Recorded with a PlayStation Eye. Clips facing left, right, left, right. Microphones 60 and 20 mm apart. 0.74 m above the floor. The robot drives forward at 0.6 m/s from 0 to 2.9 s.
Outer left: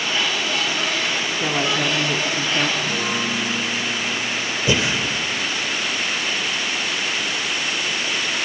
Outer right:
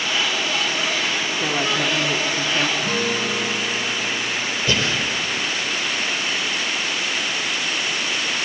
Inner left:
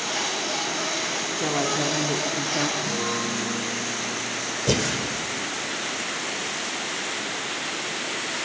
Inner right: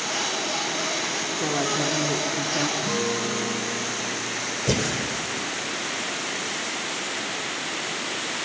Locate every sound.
1.4 s a woman speaking: centre (ahead or behind), 1.6 m; by 2.7 s 5° left (ahead or behind), 0.8 m
2.8 s a guitar: 50° right (ahead or behind), 8 m
4.7 s breathing: 20° left (ahead or behind), 1.8 m